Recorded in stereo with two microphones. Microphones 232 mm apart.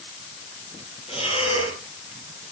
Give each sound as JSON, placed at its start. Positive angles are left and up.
{"t": 1.1, "sound": "breathing", "side_deg": 25, "distance_m": 4.5}